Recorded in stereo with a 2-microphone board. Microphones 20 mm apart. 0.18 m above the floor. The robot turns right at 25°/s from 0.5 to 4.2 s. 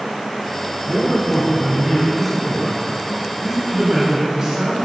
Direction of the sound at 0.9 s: 15° left (ahead or behind).